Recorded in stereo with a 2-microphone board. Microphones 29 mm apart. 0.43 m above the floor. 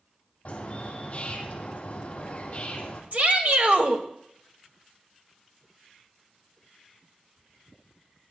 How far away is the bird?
About 3 m.